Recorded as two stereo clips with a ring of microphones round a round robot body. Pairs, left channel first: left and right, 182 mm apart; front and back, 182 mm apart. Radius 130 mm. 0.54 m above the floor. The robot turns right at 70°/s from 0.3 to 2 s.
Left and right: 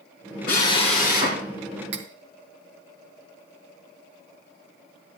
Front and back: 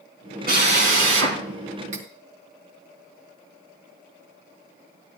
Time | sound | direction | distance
0.5 | a drill | 145° left | 3.5 m
1.9 | cutlery clinking | 120° right | 1.0 m